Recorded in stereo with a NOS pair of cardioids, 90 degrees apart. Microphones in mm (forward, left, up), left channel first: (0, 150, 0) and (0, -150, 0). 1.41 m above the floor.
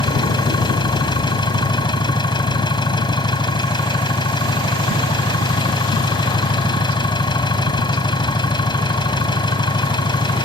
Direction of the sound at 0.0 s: 15° left.